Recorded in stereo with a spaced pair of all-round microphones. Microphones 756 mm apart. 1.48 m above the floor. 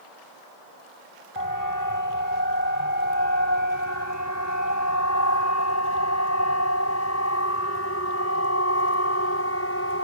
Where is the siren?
25° left (ahead or behind); by 10.0 s 15° left (ahead or behind).